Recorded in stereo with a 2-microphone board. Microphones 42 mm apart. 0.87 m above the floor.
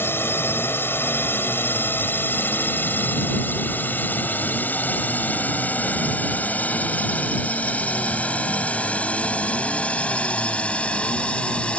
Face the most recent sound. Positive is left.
turn(degrees=25)  # may be behind; listen again after turning